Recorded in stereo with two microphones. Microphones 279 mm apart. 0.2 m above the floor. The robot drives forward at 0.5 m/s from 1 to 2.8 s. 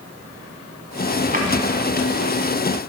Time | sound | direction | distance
1.3 | a drawer | 30° right (ahead or behind) | 0.8 m